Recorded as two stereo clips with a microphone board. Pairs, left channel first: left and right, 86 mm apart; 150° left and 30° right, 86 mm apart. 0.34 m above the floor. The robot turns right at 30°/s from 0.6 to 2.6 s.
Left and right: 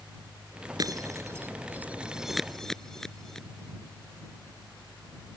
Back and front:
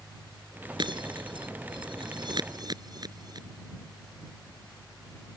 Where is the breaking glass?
50° right; by 3.5 s 5° left.